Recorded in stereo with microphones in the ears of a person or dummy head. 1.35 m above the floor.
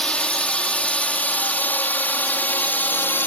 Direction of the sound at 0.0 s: 10° left (ahead or behind).